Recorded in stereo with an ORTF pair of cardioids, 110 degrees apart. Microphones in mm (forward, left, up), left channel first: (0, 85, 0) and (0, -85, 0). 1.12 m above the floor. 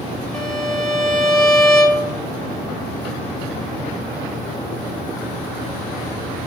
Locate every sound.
0.3 s a violin: 5° left, 1.3 m